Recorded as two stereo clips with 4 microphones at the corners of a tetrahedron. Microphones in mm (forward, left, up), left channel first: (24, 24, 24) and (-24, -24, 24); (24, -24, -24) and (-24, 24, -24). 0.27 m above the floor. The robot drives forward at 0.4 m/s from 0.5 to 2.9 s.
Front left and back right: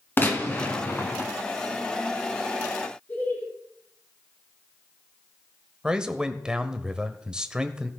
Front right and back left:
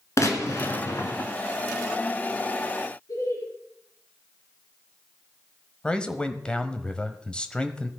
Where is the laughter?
15° right, 4.5 m.